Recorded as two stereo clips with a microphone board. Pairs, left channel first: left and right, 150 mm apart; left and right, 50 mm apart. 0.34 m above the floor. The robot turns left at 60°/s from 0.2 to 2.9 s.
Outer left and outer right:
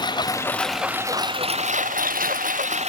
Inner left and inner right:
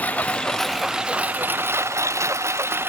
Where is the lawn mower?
30° left; by 2.9 s 130° right.